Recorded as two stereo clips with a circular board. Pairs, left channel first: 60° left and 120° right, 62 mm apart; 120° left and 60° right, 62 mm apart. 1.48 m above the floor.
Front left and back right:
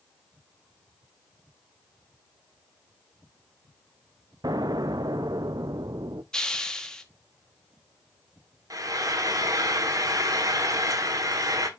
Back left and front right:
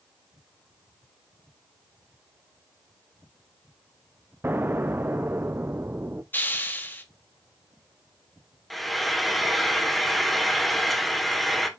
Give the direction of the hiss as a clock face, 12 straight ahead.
8 o'clock.